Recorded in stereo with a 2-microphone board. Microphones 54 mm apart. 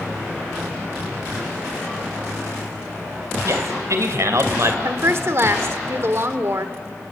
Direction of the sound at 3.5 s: 70° right (ahead or behind).